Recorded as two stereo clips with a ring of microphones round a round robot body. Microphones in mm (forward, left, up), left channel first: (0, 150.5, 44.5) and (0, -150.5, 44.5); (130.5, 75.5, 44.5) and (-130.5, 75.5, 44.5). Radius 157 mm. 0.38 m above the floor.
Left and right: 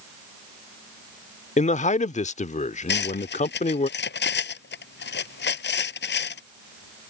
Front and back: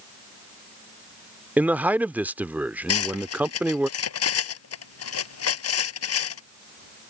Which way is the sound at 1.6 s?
105° left.